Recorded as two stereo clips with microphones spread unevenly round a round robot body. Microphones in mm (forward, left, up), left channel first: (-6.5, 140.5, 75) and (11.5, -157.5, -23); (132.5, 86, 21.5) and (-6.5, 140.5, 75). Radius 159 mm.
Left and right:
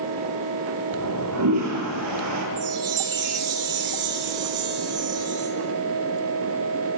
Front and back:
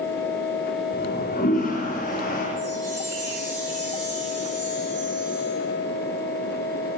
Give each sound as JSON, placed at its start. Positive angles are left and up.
{"t": 0.9, "sound": "a toilet flushing", "azimuth_deg": -55, "distance_m": 7.0}
{"t": 2.6, "sound": "a chime", "azimuth_deg": -120, "distance_m": 6.0}